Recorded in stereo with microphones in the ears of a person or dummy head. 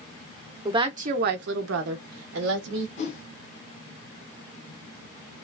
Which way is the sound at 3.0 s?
40° left (ahead or behind).